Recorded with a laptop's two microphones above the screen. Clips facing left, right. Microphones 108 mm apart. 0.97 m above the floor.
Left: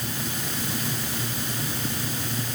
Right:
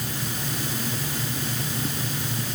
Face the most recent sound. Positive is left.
No sound to turn to.